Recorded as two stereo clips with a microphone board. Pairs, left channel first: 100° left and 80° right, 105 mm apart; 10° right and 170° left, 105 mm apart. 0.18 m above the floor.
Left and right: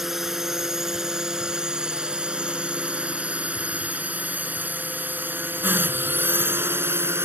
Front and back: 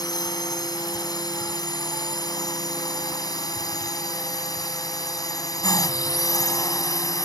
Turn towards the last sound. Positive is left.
turn(degrees=-30)